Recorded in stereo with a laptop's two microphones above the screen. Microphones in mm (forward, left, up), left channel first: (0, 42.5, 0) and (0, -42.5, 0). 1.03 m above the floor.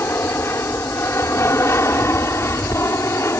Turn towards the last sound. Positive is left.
turn(degrees=30)  # may be behind; listen again after turning